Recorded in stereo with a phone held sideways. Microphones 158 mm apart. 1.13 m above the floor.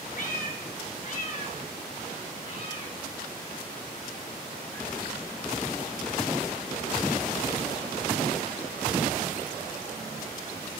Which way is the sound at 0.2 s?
60° left (ahead or behind).